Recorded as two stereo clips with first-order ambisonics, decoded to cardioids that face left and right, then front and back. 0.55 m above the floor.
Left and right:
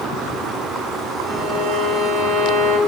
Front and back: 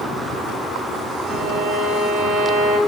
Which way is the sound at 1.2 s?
115° right.